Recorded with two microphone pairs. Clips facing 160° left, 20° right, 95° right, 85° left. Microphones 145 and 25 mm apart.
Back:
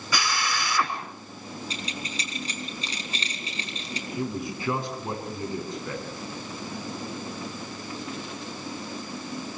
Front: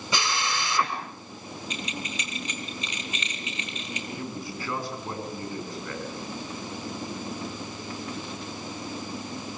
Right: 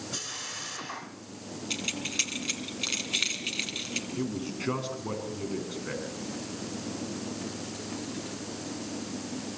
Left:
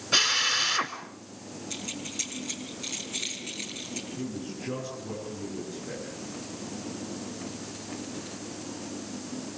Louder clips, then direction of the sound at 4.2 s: Back 4 dB, right 3 dB; 130° right.